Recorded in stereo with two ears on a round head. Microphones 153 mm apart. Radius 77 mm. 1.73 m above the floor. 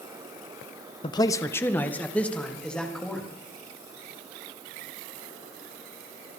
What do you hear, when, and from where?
1.0 s a man speaking: 30° left (ahead or behind), 0.8 m; by 3.2 s 5° left (ahead or behind), 4 m